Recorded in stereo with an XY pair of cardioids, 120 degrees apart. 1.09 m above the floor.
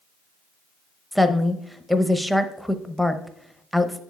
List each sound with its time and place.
1.1 s a woman speaking: straight ahead, 0.7 m